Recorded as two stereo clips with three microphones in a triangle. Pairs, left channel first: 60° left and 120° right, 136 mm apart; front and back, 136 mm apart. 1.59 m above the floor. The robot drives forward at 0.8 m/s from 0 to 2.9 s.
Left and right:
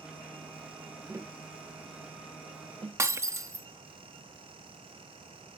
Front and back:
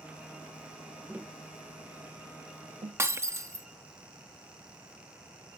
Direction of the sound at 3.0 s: 145° right.